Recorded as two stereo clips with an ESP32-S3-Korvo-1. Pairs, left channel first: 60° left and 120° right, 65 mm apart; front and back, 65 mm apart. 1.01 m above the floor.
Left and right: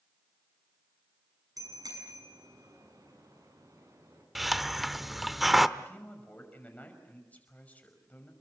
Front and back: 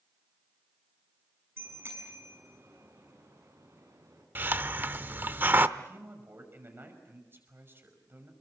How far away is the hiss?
About 0.7 m.